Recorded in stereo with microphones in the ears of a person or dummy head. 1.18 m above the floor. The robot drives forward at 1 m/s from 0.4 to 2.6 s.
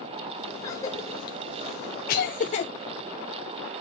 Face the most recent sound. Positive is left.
turn(degrees=35)  # may be behind; listen again after turning